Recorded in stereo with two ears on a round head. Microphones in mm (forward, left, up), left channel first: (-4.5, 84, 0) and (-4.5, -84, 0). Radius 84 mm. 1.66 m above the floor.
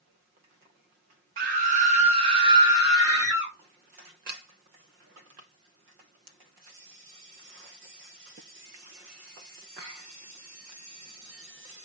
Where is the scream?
50° right (ahead or behind), 0.8 m; by 3.5 s 15° right (ahead or behind), 1.7 m.